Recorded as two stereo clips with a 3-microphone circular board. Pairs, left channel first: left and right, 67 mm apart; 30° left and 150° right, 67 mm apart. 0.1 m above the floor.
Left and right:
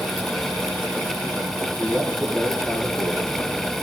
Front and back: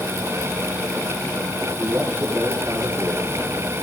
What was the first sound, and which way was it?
A man speaking, 145° left.